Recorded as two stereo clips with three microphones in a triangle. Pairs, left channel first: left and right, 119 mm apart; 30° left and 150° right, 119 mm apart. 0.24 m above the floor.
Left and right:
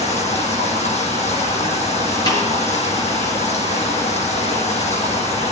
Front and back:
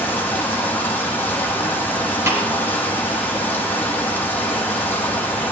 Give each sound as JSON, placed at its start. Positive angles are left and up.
{"t": 0.0, "sound": "running water", "azimuth_deg": 105, "distance_m": 5.5}
{"t": 2.3, "sound": "a snare drum", "azimuth_deg": 145, "distance_m": 4.5}